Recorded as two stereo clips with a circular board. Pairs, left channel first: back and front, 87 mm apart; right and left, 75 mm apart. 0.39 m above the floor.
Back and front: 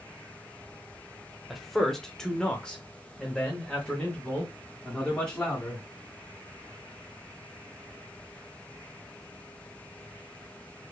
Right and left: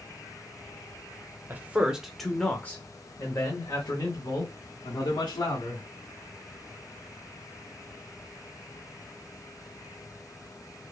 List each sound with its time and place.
1.5 s a man speaking: 90° left, 0.8 m; by 5.8 s 105° right, 2 m